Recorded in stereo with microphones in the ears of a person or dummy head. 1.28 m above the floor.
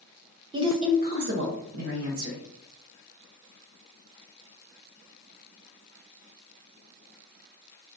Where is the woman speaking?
15° right (ahead or behind), 0.5 m; by 2.4 s 70° right (ahead or behind), 1.2 m.